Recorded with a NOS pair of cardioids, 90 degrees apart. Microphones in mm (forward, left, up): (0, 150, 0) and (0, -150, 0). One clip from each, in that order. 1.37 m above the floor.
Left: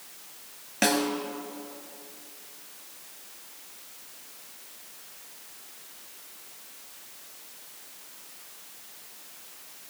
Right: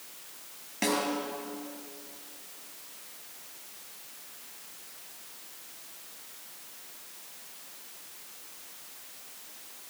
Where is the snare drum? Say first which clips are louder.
Left 4 dB; 50° left, 4 m.